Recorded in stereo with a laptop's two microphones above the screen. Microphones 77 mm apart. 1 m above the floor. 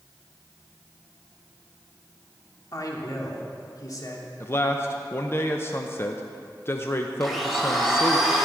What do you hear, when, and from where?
2.7 s a man speaking: 50° left (ahead or behind), 2 m
4.4 s a man speaking: 30° left (ahead or behind), 0.6 m
7.2 s a blender: centre (ahead or behind), 2.5 m